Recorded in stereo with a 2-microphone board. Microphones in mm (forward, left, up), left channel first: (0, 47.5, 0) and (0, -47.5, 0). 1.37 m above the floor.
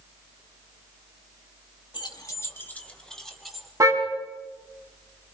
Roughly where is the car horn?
Right.